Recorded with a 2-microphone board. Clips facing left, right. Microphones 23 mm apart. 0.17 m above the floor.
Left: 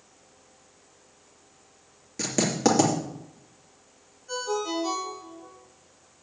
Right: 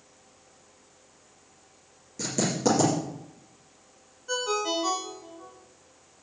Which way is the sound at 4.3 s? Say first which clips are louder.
Right 1 dB; 40° right (ahead or behind).